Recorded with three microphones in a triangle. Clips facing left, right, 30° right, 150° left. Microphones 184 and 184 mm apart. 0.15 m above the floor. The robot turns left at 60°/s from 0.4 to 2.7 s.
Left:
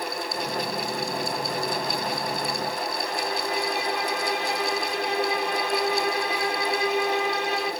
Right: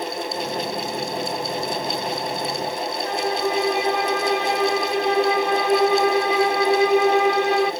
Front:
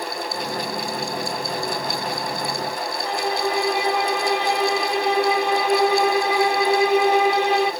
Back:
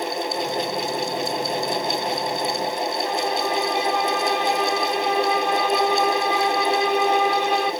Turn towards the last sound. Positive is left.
turn(degrees=-110)